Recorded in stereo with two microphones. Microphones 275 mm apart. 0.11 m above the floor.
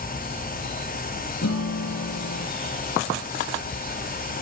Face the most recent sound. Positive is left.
turn(degrees=65)  # may be behind; listen again after turning